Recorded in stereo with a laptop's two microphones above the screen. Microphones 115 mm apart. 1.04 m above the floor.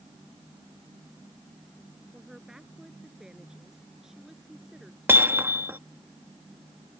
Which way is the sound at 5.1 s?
20° right (ahead or behind).